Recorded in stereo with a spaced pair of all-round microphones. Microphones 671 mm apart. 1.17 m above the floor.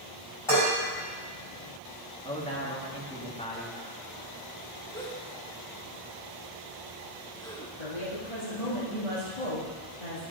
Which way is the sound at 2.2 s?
10° left (ahead or behind).